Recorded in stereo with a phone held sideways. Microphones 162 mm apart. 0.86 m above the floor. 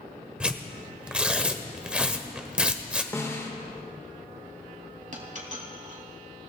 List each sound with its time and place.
0.4 s tearing paper: 5° right (ahead or behind), 1.0 m
3.1 s a snare drum: 20° left (ahead or behind), 1.8 m
5.1 s a dropped coin: 55° right (ahead or behind), 3 m